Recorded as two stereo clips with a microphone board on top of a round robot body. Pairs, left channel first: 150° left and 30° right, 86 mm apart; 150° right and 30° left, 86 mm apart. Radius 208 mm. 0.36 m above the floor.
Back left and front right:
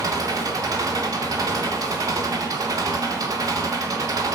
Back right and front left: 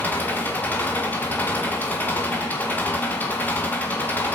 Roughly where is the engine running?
Right.